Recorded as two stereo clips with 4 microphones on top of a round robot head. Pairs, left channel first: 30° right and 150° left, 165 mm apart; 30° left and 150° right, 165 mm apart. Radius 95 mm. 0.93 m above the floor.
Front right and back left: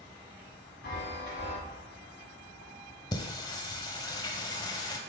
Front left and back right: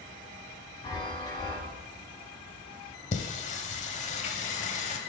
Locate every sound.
0.8 s a chime: 30° right, 3 m
3.1 s singing: 20° left, 0.8 m